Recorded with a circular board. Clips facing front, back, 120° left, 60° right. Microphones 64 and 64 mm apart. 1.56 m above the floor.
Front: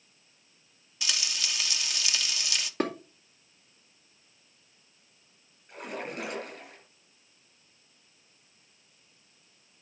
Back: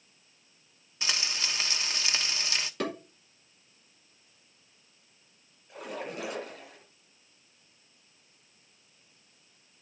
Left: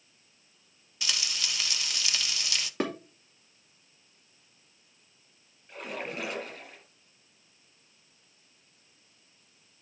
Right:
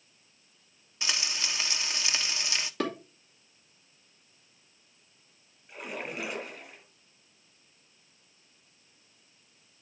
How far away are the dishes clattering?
About 2.5 m.